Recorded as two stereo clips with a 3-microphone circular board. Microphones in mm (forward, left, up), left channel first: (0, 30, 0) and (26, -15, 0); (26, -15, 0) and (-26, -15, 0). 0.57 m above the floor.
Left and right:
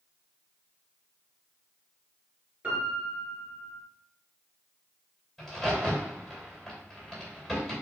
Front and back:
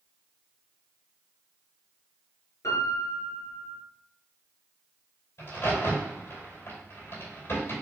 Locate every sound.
2.6 s a piano: 5° left, 2 m
5.4 s a crack: 30° left, 2.5 m